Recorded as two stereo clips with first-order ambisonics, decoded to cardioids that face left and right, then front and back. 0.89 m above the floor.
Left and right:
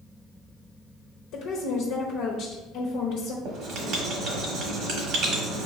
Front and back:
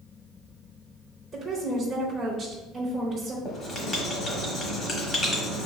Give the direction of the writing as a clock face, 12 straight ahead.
2 o'clock.